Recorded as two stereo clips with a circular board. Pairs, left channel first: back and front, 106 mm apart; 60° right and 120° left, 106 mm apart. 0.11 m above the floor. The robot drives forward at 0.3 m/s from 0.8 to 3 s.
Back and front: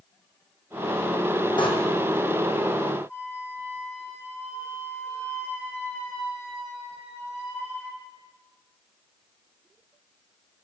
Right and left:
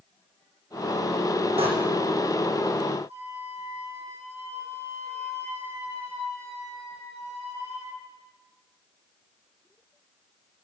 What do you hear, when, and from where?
1.6 s a door slam: 140° left, 3.5 m
3.1 s a flute: 115° left, 6 m